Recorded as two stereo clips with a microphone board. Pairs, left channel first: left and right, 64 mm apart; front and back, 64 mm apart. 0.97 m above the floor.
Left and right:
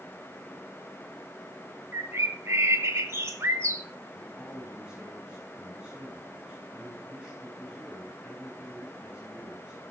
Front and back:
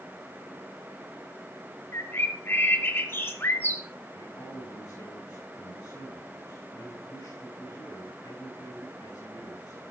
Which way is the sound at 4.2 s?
10° right.